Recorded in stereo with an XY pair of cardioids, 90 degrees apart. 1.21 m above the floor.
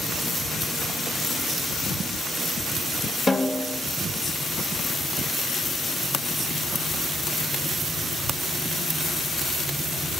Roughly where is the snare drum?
Ahead left.